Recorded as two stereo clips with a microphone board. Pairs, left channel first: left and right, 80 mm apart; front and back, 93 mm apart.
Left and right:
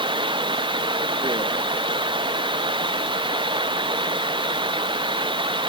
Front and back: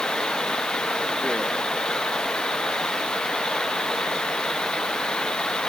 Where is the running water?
85° right.